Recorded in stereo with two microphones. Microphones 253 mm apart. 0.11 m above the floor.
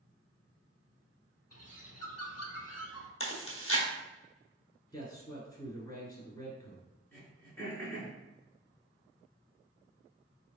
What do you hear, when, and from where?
1.5 s a bird: 70° left (ahead or behind), 0.6 m
3.2 s chewing: 55° left (ahead or behind), 1.3 m
4.9 s a man speaking: 15° left (ahead or behind), 1.4 m
7.1 s throat clearing: 10° left (ahead or behind), 1.6 m